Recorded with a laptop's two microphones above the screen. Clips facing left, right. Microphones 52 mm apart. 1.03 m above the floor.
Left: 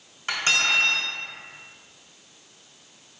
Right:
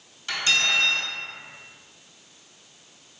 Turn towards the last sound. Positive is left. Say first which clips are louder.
# left 1 dB
turn(degrees=35)  # may be behind; listen again after turning